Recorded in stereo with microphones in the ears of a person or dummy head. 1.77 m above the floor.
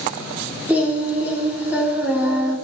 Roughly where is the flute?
I don't hear a flute.